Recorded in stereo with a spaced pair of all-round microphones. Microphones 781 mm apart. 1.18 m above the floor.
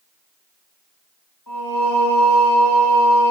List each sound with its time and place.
1.5 s singing: 25° left (ahead or behind), 1.4 m